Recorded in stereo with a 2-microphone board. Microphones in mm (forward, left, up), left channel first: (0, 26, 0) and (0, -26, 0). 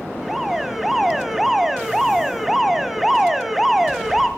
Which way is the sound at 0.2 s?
5° right (ahead or behind).